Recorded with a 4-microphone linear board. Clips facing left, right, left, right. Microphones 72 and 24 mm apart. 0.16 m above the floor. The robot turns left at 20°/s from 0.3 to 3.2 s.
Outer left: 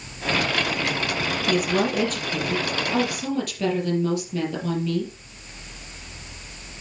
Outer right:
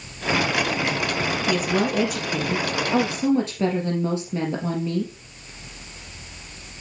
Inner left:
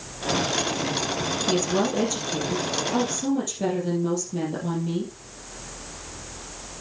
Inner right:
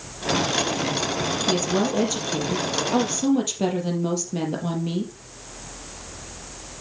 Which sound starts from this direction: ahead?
A woman speaking, at 1.5 s.